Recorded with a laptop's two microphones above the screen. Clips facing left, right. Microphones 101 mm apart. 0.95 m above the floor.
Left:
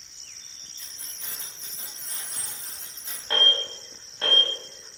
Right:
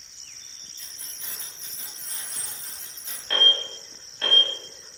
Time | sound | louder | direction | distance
0.8 | keys jangling | left 1 dB | 85° left | 1.7 m
3.3 | an alarm | even | 25° left (ahead or behind) | 0.8 m